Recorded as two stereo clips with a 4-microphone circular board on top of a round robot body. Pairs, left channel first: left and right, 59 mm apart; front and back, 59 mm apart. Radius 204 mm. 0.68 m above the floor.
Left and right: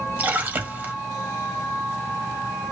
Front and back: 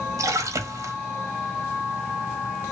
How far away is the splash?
About 0.8 m.